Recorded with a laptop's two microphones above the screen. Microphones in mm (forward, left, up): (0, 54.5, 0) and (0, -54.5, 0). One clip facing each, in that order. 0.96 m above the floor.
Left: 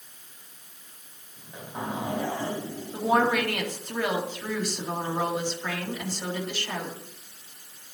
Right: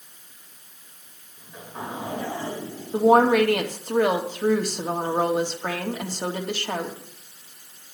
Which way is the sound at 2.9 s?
45° right (ahead or behind).